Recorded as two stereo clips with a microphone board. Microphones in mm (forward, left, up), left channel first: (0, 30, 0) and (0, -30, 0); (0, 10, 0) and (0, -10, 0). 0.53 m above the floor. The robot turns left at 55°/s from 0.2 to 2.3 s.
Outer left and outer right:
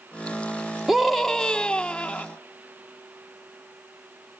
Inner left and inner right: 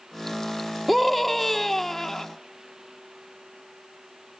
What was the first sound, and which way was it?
A scream, 5° right (ahead or behind).